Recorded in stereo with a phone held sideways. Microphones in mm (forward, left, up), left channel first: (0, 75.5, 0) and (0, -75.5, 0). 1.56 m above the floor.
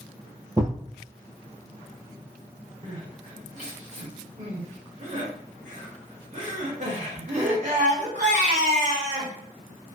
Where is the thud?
20° right (ahead or behind), 1.6 m.